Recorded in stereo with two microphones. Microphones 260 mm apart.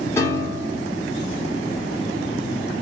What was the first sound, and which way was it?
A piano, 10° left (ahead or behind).